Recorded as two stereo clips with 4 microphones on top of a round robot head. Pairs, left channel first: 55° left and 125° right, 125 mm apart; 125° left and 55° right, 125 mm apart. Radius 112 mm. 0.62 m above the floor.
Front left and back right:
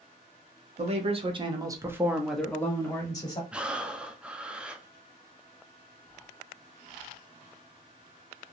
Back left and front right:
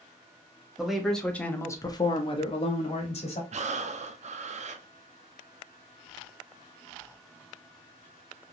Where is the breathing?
45° right, 0.5 m.